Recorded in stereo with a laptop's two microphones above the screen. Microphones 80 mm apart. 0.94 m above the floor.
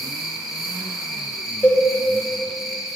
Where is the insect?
Centre (ahead or behind), 0.7 m.